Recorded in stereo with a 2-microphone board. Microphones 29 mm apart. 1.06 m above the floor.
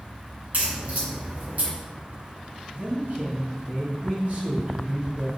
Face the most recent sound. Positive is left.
turn(degrees=-60)  # may be behind; listen again after turning